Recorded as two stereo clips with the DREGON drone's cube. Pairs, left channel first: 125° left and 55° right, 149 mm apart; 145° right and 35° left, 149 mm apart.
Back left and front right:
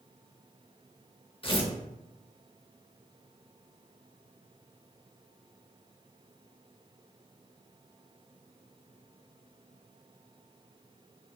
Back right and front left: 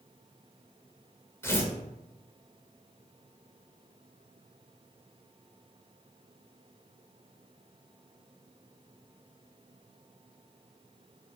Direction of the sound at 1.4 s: 150° left.